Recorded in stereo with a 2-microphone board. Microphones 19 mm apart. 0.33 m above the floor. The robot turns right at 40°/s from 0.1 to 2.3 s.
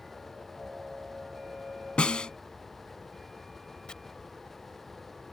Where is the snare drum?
65° left (ahead or behind); by 2.3 s 50° left (ahead or behind).